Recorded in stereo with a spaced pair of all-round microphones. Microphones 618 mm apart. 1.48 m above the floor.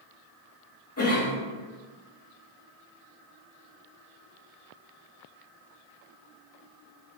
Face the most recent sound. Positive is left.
turn(degrees=25)  # may be behind; listen again after turning